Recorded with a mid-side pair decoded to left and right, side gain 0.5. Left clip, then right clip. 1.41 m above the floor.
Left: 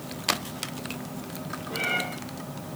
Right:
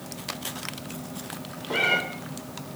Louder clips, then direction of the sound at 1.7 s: Right 5 dB; 60° right.